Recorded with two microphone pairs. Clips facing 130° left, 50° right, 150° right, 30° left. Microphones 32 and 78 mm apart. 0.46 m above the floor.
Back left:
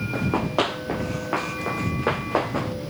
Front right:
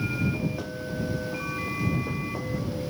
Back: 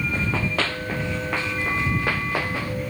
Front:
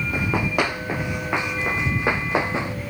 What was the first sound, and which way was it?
Running footsteps, 105° left.